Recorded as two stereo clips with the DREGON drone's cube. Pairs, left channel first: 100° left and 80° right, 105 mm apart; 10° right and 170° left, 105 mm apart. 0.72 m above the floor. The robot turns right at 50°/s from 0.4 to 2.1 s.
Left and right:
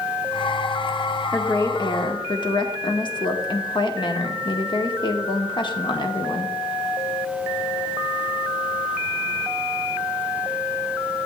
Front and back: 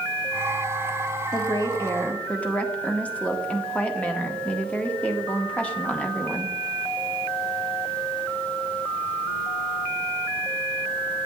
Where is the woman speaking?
25° left, 1.2 m; by 6.5 s 65° left, 1.2 m.